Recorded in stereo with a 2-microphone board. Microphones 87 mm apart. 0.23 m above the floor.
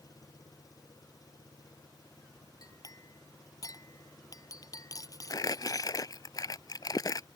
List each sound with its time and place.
0.0 s an engine running: 45° left (ahead or behind)
2.6 s a clink: 45° left (ahead or behind)
5.3 s crumpling: 45° left (ahead or behind)